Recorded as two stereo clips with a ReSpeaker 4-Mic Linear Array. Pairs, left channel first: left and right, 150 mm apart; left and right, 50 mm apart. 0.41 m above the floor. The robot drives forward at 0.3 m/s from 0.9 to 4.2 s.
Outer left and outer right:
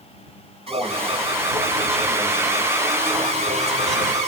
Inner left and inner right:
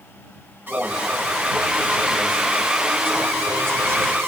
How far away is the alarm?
About 2.5 m.